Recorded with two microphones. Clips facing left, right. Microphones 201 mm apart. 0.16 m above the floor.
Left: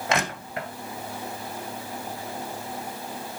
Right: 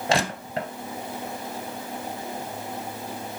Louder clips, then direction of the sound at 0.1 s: Right 3 dB; 30° right (ahead or behind).